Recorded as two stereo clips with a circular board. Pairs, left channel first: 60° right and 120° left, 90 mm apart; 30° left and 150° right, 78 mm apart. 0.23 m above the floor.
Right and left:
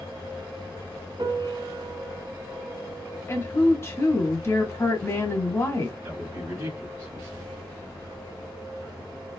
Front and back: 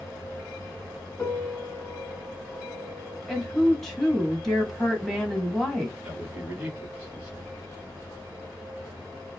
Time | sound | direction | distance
1.2 | a piano | 90° left | 0.6 m
3.3 | a woman speaking | 50° right | 1.1 m
6.0 | a man speaking | 150° left | 1.2 m